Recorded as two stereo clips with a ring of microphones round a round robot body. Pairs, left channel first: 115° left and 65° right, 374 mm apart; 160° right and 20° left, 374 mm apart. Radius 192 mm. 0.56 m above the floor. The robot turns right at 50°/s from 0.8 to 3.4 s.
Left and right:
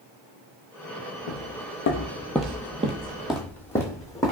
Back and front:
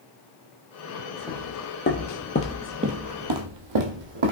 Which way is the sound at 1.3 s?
115° left.